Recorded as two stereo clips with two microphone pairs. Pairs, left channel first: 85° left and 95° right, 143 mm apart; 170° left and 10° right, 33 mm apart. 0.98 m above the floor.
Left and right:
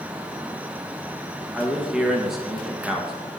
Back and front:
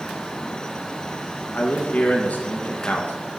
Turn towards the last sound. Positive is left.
turn(degrees=180)